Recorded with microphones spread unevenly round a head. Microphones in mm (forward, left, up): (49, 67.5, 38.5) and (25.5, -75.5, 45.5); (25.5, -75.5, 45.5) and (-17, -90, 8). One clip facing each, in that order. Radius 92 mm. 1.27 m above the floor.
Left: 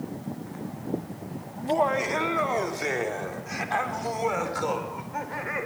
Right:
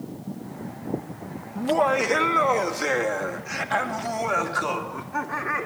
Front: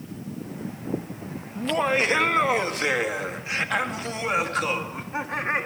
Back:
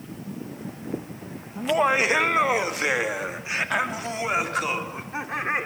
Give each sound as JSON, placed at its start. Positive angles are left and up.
{"t": 1.6, "sound": "laughter", "azimuth_deg": -90, "distance_m": 1.5}